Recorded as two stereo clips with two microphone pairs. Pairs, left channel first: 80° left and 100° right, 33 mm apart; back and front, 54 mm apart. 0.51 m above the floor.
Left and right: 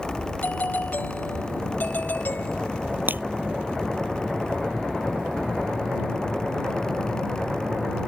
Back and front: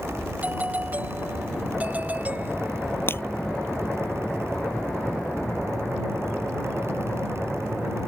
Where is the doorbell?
60° left.